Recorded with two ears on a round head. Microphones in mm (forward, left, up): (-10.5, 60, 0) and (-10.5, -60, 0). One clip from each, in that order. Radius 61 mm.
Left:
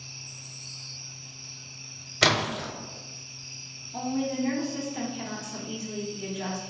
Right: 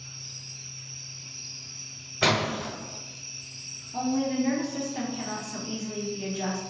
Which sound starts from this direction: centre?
A woman speaking, at 3.9 s.